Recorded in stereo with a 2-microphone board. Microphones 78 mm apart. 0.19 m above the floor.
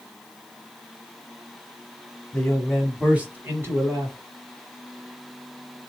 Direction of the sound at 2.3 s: 15° left (ahead or behind).